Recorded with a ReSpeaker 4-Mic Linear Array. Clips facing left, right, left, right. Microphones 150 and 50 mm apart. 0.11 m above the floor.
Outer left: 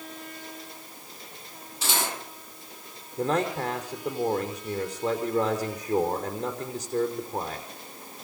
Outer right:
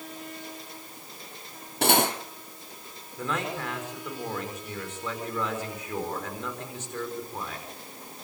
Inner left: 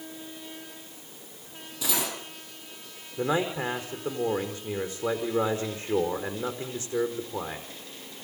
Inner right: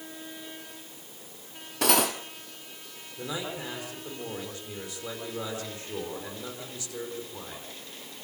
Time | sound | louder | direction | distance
1.8 | cutlery clinking | outer right 8 dB, inner right 7 dB | 60° right (ahead or behind) | 2.5 m
3.2 | a man speaking | outer left 6 dB, inner left 8 dB | 35° left (ahead or behind) | 5 m